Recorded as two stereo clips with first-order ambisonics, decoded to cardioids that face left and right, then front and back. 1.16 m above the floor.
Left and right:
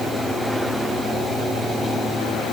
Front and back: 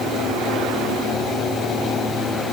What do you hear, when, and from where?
Only background noise.